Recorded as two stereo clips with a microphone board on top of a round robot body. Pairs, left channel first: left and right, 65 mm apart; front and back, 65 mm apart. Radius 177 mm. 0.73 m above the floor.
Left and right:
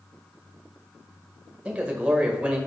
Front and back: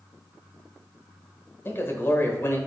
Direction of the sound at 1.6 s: 30° right.